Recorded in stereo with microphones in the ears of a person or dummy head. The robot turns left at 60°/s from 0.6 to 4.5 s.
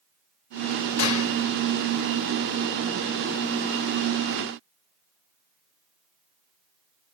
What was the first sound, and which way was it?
A gunshot, 85° left.